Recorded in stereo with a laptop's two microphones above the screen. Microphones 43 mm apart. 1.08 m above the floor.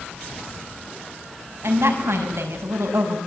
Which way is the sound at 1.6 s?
75° right (ahead or behind).